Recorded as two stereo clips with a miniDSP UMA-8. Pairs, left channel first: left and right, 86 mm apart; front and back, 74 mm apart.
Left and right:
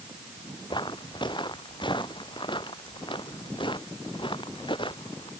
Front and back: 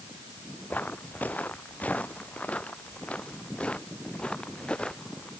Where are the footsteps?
65° left; by 5.3 s 75° left.